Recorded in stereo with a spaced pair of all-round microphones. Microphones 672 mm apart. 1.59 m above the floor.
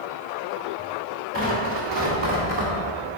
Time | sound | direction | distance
1.3 | tearing paper | 45° right (ahead or behind) | 2.5 m